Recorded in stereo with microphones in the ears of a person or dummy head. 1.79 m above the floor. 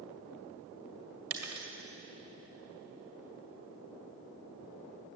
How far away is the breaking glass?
About 1.8 m.